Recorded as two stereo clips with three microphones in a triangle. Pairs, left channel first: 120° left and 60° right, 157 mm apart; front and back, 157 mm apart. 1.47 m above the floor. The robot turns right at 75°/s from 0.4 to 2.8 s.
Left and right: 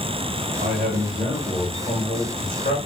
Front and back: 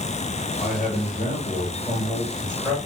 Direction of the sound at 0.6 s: 55° right.